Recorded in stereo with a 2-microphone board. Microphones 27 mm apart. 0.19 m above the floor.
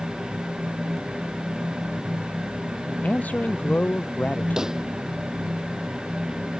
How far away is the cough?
I don't hear a cough.